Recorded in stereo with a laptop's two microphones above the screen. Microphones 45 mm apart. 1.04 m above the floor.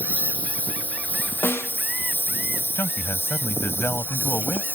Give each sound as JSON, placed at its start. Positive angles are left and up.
{"t": 0.0, "sound": "a lawn mower", "side_deg": 35}
{"t": 1.4, "sound": "a snare drum", "side_deg": 65}
{"t": 2.8, "sound": "a man speaking", "side_deg": 65}